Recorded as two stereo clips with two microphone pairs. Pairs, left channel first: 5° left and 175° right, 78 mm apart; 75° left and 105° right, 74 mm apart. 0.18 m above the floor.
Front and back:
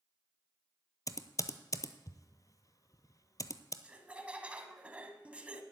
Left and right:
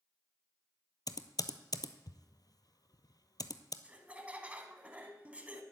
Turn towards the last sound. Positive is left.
turn(degrees=-135)